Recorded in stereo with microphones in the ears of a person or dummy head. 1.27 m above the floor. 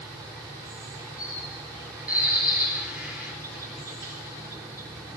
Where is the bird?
10° right (ahead or behind), 5.5 m.